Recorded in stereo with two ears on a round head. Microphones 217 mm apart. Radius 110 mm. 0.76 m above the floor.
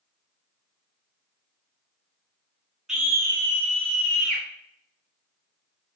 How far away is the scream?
About 0.9 m.